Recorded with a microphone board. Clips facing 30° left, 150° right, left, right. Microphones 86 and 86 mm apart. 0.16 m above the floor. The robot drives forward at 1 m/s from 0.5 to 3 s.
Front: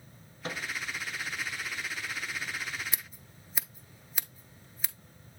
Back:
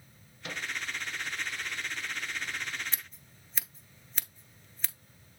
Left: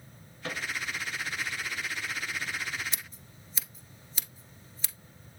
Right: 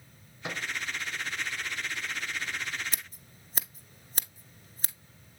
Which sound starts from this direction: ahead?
A microwave, at 0.4 s.